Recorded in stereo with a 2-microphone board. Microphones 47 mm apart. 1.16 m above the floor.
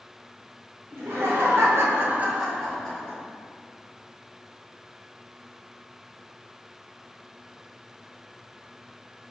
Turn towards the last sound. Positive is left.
turn(degrees=20)  # may be behind; listen again after turning